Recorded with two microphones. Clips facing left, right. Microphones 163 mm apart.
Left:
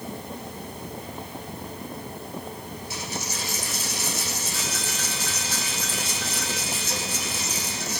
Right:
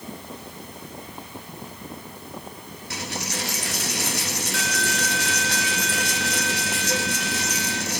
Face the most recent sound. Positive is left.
turn(degrees=-70)  # may be behind; listen again after turning